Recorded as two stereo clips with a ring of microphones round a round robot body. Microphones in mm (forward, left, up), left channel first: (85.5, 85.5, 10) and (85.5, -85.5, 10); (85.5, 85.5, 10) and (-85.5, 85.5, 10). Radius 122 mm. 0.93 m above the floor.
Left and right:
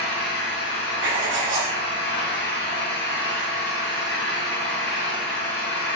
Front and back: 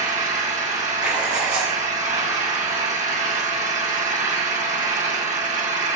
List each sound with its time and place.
0.0 s an engine running: 135° left, 1.6 m
1.0 s writing: 130° right, 2 m